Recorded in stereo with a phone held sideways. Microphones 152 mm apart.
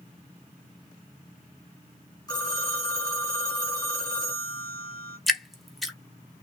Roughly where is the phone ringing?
Left.